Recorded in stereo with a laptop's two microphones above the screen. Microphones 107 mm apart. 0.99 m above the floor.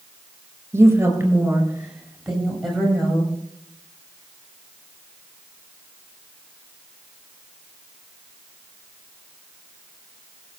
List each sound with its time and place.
0.7 s a woman speaking: 20° right (ahead or behind), 5.5 m; by 3.3 s 5° left (ahead or behind), 7 m